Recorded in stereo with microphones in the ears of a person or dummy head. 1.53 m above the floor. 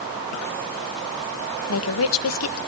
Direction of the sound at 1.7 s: 70° left (ahead or behind).